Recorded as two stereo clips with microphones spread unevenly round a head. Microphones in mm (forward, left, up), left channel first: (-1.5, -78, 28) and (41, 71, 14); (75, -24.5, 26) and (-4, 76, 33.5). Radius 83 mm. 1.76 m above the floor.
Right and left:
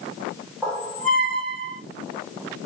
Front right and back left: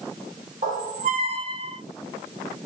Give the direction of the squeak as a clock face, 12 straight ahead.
6 o'clock.